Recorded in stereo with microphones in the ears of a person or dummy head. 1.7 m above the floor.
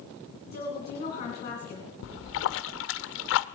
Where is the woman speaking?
30° left (ahead or behind), 2 m.